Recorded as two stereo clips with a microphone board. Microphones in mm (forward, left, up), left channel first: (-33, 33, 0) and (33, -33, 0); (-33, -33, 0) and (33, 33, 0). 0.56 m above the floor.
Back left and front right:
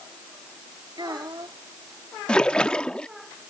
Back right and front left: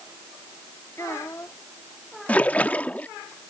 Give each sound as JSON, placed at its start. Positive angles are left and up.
{"t": 1.0, "sound": "a child speaking", "azimuth_deg": -80}
{"t": 2.3, "sound": "a splash", "azimuth_deg": -165}